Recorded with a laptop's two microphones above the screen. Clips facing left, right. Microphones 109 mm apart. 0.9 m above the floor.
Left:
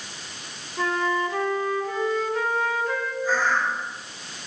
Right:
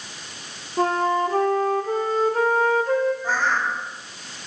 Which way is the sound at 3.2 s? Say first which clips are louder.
Even; 55° right (ahead or behind).